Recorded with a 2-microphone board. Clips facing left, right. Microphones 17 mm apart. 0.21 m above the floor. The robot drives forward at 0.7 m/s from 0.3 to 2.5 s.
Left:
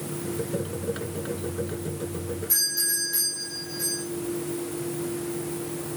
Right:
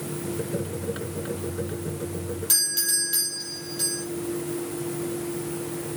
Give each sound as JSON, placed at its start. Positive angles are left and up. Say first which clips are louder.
{"t": 2.5, "sound": "a doorbell", "louder": "right 2 dB", "side_deg": -65, "distance_m": 8.0}